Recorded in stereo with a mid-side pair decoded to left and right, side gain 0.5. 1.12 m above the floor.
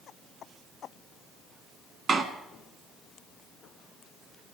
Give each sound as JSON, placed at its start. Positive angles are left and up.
{"t": 2.1, "sound": "a door slam", "azimuth_deg": -40, "distance_m": 1.4}